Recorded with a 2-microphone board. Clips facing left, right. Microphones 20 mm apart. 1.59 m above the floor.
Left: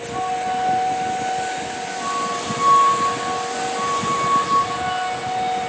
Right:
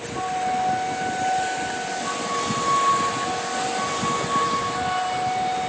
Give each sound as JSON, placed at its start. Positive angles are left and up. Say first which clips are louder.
{"t": 0.1, "sound": "a flute", "louder": "left 2 dB", "side_deg": 45, "distance_m": 1.4}